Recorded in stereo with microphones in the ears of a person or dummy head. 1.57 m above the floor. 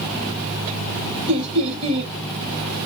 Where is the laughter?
35° right (ahead or behind), 2.5 m.